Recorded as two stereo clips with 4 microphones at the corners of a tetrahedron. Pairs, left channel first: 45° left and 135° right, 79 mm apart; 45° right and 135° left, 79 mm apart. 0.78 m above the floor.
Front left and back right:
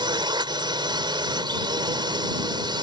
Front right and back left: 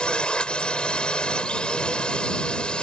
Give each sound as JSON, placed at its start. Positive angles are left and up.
{"t": 0.0, "sound": "a drone", "azimuth_deg": -125}